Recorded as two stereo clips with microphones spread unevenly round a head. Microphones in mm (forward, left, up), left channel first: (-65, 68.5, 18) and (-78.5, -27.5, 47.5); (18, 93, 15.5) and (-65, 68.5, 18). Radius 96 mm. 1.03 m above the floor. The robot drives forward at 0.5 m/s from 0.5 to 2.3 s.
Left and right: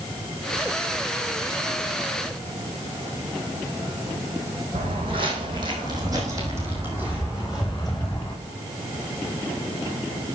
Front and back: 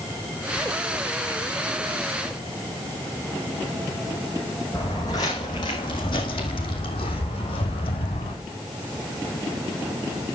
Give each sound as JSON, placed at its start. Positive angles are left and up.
{"t": 4.7, "sound": "footsteps", "azimuth_deg": -55, "distance_m": 2.5}